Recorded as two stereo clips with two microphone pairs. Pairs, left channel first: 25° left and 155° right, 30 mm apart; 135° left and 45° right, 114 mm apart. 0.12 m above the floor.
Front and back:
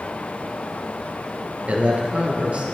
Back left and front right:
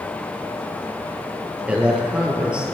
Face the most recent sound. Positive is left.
turn(degrees=-120)